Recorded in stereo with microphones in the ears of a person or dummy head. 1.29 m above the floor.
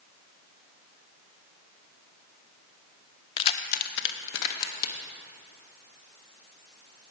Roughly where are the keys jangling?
Left.